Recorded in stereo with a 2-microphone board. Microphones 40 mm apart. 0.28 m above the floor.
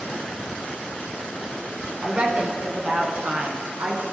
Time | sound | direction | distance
2.0 | a woman speaking | 30° right (ahead or behind) | 1.9 m